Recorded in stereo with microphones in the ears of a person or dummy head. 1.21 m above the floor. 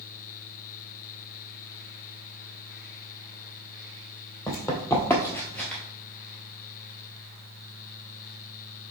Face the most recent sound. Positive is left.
turn(degrees=5)  # may be behind; listen again after turning